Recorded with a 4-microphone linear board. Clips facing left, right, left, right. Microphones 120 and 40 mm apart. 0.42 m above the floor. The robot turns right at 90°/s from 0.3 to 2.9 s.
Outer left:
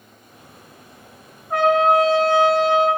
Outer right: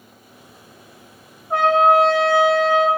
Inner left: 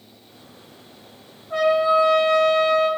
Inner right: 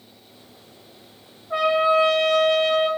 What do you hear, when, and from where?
1.5 s a trumpet: 160° right, 1.0 m; by 2.9 s 35° right, 1.0 m